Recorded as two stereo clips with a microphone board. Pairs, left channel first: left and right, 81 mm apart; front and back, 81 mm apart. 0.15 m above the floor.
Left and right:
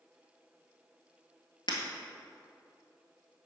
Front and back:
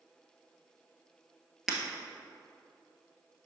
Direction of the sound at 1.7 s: 95° left.